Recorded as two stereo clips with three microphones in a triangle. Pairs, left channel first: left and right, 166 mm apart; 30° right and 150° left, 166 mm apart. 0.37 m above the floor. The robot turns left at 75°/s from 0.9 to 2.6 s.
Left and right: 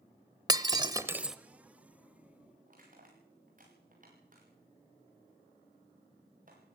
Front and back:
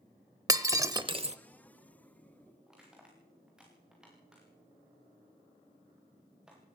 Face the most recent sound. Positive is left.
turn(degrees=-125)